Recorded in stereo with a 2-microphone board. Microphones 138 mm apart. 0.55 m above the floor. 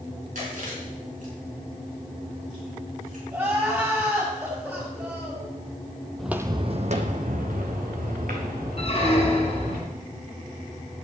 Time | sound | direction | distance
0.3 | chewing | 70° right (ahead or behind) | 4.5 m
3.3 | crying | 20° right (ahead or behind) | 4.5 m
6.2 | footsteps | 5° left (ahead or behind) | 0.7 m
8.8 | a squeak | 45° left (ahead or behind) | 2 m